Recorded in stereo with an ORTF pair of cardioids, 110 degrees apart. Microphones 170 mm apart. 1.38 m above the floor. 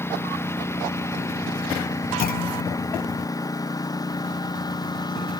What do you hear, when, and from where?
0.0 s a lawn mower: 15° left; by 5.4 s 25° left
2.2 s a clunk: 60° left